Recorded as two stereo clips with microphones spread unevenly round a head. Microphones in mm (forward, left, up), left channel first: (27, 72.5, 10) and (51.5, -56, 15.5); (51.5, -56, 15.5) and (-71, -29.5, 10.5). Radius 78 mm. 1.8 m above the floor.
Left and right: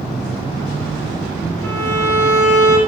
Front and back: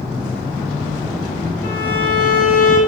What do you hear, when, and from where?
1.6 s a violin: 30° left, 5 m